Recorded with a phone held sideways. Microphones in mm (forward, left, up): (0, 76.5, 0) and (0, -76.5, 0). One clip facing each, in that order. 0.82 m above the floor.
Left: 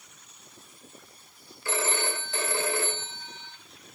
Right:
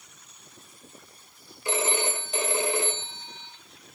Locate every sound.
1.6 s a phone ringing: 20° right (ahead or behind), 2.5 m